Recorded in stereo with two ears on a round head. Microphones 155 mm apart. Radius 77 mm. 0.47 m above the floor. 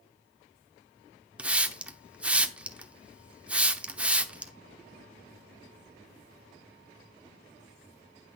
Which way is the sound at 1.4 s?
5° right (ahead or behind).